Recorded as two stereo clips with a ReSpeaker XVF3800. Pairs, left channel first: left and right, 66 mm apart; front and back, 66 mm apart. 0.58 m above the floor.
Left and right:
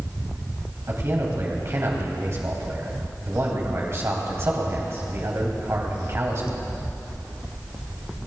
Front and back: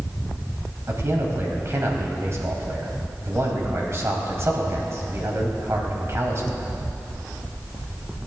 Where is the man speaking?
135° right, 3 m.